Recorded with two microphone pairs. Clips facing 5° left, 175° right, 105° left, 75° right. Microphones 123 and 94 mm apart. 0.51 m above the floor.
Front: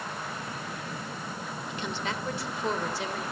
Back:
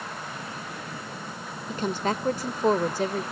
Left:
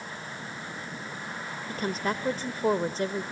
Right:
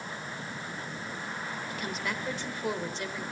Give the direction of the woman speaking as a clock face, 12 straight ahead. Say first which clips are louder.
Back 8 dB, left 8 dB; 7 o'clock.